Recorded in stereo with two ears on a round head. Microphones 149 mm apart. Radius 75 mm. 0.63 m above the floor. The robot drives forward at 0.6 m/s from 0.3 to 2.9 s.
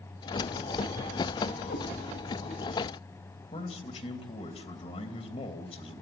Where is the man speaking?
35° left (ahead or behind), 2.5 m.